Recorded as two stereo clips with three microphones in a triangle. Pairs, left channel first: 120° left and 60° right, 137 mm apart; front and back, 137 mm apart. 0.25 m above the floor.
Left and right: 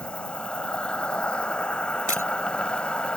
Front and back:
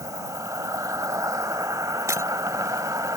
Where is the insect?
170° right.